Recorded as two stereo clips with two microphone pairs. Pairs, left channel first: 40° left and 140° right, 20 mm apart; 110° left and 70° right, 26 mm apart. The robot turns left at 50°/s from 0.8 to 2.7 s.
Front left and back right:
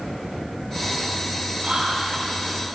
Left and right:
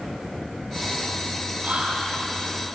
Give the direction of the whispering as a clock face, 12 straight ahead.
3 o'clock.